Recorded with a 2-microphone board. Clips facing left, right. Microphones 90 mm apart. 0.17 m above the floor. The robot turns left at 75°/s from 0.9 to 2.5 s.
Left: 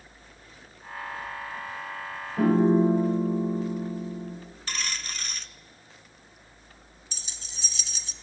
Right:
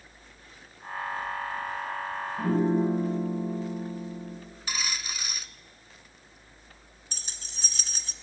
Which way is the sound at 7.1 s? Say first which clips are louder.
Right 2 dB; 50° right (ahead or behind).